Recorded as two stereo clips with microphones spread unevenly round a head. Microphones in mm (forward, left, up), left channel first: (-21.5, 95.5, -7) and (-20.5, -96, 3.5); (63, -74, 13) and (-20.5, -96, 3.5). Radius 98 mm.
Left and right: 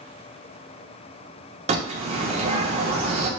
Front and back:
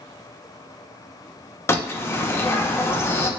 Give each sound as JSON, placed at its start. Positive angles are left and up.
{"t": 1.7, "sound": "a bird", "azimuth_deg": -40, "distance_m": 0.6}